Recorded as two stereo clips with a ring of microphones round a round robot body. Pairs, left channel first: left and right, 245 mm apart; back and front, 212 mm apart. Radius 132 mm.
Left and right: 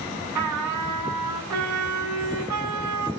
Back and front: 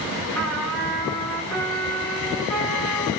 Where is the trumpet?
100° right, 7.5 m.